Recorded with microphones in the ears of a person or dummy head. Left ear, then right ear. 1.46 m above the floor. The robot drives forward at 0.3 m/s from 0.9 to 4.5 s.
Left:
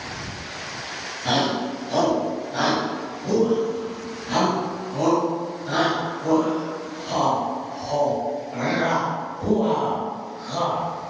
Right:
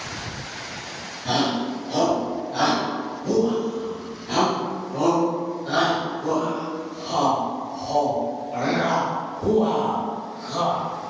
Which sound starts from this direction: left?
A shout, at 1.2 s.